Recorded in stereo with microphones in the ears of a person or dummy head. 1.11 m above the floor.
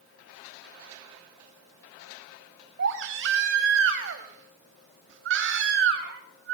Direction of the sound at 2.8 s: 60° right (ahead or behind).